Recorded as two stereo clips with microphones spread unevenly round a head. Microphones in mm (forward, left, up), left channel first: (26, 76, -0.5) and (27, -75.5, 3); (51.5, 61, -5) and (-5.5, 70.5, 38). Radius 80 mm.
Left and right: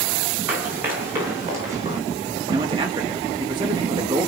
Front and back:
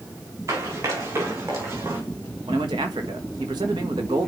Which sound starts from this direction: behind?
Running footsteps, at 0.5 s.